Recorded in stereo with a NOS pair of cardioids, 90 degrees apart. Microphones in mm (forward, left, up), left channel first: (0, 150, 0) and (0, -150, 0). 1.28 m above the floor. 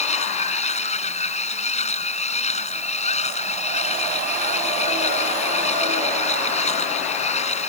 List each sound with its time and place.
0.0 s a machine running: 20° left